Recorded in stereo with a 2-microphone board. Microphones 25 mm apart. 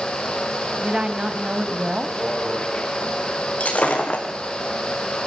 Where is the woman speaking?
35° right (ahead or behind), 1.3 m.